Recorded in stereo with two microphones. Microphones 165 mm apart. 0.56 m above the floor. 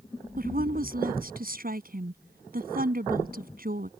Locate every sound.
0.4 s a woman speaking: 60° right (ahead or behind)